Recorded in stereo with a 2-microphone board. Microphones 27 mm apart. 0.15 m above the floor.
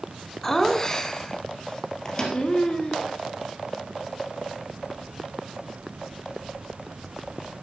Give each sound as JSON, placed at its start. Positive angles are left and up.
{"t": 0.4, "sound": "laughter", "side_deg": 15, "distance_m": 1.3}
{"t": 2.0, "sound": "a microwave", "side_deg": 25, "distance_m": 2.5}